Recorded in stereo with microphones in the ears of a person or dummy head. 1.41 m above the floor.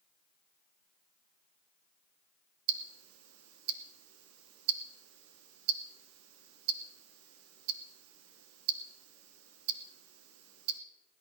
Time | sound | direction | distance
2.7 | ticking | 85° right | 1.0 m